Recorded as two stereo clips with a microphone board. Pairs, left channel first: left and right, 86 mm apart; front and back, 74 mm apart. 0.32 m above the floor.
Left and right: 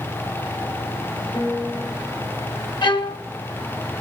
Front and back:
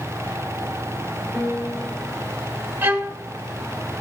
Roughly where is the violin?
Behind left.